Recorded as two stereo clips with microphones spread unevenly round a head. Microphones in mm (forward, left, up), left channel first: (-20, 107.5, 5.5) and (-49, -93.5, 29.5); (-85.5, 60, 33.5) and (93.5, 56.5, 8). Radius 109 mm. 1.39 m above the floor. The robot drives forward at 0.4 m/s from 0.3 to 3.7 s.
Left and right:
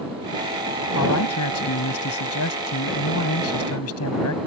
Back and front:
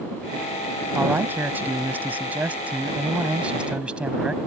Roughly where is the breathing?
No breathing in this recording.